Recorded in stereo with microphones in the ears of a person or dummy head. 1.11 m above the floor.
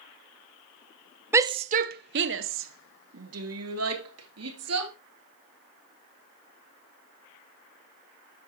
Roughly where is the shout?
Centre.